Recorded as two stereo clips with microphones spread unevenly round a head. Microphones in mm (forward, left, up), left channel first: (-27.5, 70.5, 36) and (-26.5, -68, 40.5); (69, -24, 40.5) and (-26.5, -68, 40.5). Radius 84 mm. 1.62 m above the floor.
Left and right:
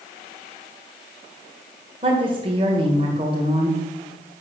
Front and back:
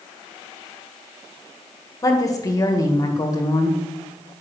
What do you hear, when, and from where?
2.0 s a woman speaking: 30° right, 1.7 m